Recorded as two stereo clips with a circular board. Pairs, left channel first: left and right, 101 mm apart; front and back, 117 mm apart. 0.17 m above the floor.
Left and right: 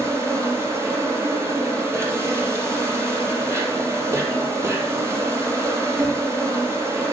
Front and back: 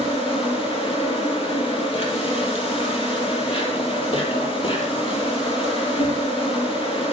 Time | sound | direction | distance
0.0 | an insect | 30° right | 4.5 m